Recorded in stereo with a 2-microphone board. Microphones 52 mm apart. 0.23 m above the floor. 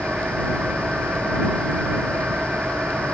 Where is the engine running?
20° right (ahead or behind).